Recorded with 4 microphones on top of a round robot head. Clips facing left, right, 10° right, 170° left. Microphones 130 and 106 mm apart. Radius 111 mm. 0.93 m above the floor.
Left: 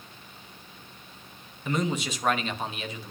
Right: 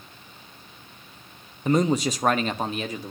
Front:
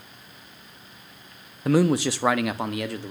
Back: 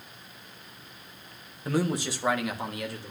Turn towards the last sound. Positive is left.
turn(degrees=-35)